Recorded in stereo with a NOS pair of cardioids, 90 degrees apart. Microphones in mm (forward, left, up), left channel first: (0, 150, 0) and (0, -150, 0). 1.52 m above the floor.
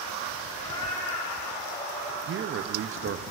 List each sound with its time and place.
0.5 s a cat meowing: 20° left, 5.5 m
2.3 s a man speaking: 40° right, 0.6 m